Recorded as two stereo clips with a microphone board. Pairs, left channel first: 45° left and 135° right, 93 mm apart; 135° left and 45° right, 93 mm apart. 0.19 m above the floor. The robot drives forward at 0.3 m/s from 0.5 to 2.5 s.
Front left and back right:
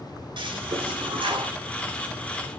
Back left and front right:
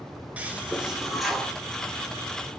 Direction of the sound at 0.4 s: 120° right.